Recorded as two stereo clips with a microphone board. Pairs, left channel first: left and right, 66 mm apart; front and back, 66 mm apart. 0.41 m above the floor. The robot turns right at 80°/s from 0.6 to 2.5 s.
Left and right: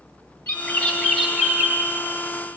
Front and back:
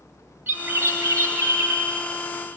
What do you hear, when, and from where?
0.5 s a bird: 130° left, 1.5 m; by 1.9 s 130° right, 1.5 m